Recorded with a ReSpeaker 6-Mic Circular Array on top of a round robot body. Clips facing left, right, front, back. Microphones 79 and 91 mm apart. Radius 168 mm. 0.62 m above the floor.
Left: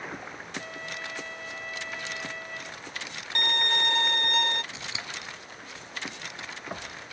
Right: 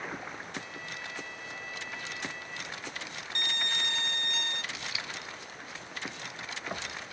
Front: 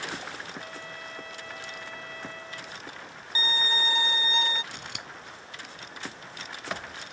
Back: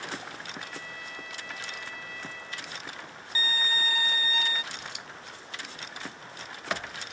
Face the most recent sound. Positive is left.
turn(degrees=30)